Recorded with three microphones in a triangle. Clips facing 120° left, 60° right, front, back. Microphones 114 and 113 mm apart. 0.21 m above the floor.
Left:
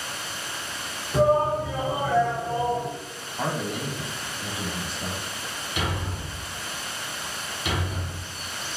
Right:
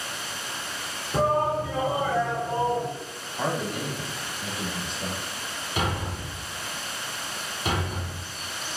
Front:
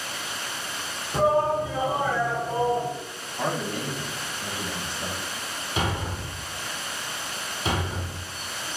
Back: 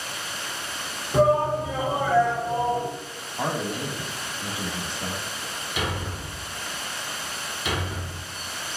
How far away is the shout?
About 2.5 m.